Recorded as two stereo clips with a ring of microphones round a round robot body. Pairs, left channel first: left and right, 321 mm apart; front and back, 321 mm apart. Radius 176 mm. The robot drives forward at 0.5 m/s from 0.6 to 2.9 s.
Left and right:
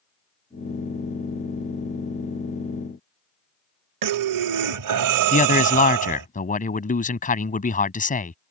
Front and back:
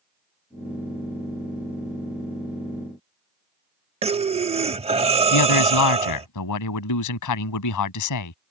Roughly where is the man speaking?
Ahead left.